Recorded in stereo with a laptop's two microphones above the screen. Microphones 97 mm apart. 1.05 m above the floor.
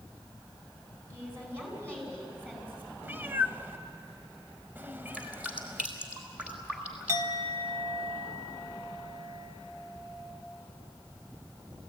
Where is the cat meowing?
20° right (ahead or behind), 0.9 m.